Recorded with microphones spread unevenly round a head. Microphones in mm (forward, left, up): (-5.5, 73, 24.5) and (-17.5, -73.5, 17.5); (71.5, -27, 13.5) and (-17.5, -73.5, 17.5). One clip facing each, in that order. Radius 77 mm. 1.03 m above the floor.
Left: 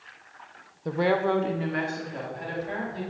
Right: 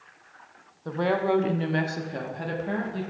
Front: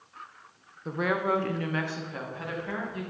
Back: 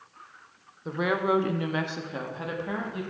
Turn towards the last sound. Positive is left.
turn(degrees=-85)